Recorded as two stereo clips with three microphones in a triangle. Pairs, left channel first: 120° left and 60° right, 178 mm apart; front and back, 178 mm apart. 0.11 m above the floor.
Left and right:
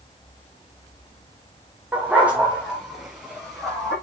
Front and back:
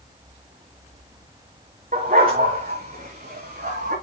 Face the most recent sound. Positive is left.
turn(degrees=-150)